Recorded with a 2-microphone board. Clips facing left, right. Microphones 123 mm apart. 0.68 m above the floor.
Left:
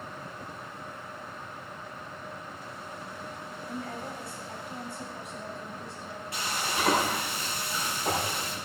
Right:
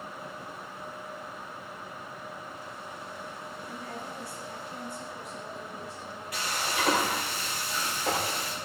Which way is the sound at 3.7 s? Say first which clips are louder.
Left 5 dB; 60° left (ahead or behind).